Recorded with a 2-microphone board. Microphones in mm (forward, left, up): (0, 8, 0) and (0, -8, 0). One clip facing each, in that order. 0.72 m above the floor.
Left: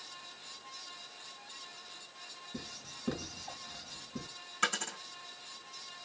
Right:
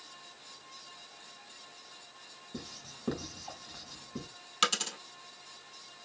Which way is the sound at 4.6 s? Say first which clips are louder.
Right 4 dB; 65° right (ahead or behind).